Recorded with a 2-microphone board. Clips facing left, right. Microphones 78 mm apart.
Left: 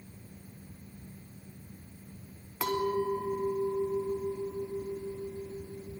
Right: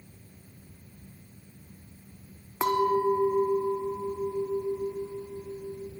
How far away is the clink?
About 1.1 m.